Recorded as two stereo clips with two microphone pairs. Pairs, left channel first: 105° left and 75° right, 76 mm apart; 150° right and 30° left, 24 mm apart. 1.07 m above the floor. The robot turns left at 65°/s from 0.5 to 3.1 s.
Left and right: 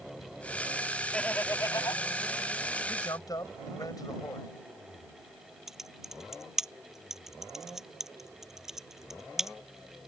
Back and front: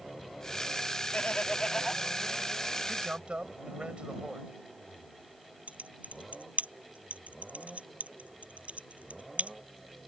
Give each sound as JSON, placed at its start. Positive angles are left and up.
{"t": 1.1, "sound": "laughter", "azimuth_deg": -175}
{"t": 2.9, "sound": "a man speaking", "azimuth_deg": 85}
{"t": 5.7, "sound": "typing on a keyboard", "azimuth_deg": 10}